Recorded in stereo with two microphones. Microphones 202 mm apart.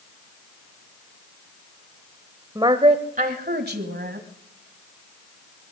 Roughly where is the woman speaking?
Centre.